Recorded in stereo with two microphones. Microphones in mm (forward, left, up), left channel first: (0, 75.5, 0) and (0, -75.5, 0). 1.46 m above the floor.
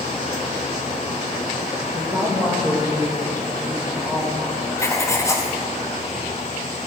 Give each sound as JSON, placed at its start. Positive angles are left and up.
{"t": 1.9, "sound": "a woman speaking", "side_deg": -30, "distance_m": 1.9}
{"t": 4.8, "sound": "writing", "side_deg": 20, "distance_m": 0.7}